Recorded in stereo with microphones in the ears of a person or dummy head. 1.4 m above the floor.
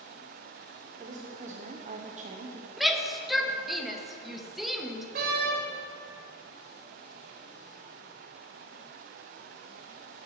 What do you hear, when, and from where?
1.0 s a woman speaking: 35° right (ahead or behind), 0.6 m
2.8 s a shout: centre (ahead or behind), 0.8 m
5.2 s a door slam: 35° right (ahead or behind), 0.7 m